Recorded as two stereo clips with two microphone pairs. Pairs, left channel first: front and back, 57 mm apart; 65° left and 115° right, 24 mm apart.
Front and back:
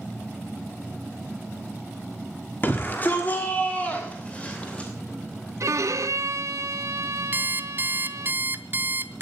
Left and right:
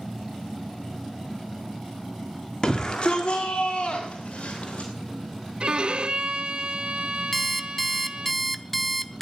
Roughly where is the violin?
Behind.